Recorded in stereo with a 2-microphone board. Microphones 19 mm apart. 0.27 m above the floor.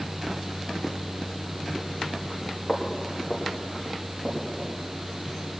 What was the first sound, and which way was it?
Footsteps, 10° left (ahead or behind).